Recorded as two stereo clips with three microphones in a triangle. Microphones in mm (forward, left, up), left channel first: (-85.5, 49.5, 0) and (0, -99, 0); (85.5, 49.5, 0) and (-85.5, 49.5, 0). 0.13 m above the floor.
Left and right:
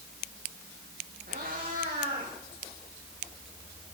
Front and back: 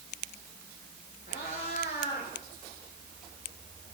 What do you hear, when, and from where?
1.3 s a cat meowing: 30° right, 6 m; by 2.3 s 20° right, 6 m